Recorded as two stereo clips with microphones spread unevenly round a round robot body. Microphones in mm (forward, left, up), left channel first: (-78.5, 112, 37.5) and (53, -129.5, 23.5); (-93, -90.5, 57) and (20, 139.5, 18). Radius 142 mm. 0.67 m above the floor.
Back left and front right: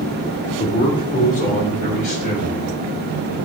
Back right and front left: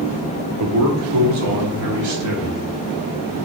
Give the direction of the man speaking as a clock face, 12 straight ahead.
10 o'clock.